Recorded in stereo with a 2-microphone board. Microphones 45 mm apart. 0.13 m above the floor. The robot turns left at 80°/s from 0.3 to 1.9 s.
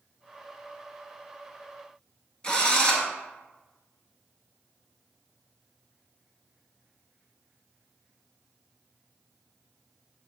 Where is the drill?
20° left (ahead or behind), 0.8 m.